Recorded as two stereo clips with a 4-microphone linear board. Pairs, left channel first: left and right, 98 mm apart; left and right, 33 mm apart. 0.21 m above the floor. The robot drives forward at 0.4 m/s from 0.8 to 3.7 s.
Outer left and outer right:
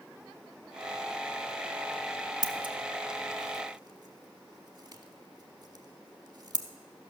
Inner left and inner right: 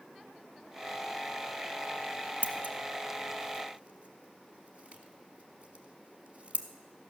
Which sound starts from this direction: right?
Scissors, at 2.4 s.